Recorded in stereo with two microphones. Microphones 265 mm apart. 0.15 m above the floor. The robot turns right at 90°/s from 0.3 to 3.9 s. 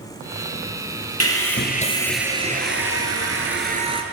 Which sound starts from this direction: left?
Sawing, at 1.2 s.